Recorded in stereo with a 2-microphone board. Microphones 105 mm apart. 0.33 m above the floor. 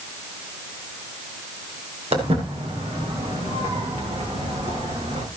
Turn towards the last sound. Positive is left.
turn(degrees=-75)  # may be behind; listen again after turning